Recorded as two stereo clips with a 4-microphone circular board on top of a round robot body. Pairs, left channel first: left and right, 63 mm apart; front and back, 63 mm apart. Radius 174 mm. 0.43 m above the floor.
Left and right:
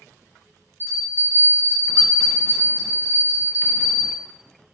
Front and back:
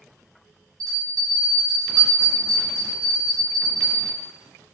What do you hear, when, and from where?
0.8 s a bell: 145° right, 0.6 m